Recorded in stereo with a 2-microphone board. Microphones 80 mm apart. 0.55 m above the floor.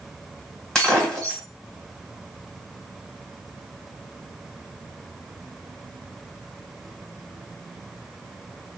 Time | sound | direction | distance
0.8 | breaking glass | 5° left (ahead or behind) | 1.1 m